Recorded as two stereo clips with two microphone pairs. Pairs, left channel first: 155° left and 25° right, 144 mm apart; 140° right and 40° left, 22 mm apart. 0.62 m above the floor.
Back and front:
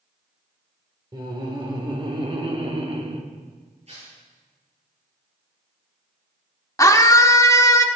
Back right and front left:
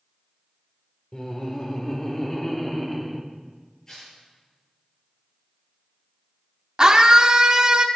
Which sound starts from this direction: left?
A scream, at 6.8 s.